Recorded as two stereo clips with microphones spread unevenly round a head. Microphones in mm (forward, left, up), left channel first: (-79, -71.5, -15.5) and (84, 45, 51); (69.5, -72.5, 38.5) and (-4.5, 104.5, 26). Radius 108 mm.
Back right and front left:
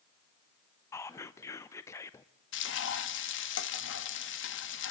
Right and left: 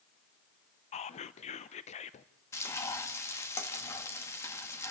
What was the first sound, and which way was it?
Whispering, 105° right.